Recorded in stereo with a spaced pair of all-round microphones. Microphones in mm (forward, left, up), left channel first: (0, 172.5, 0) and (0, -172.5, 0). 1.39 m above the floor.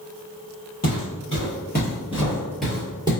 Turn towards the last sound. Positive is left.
turn(degrees=-15)  # may be behind; listen again after turning